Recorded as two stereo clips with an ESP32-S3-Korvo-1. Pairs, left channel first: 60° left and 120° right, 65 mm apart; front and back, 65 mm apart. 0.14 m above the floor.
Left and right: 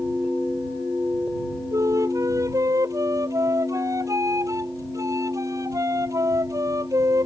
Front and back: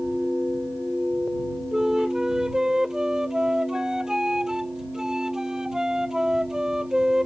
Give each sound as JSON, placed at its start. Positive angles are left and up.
{"t": 1.7, "sound": "a flute", "azimuth_deg": -100}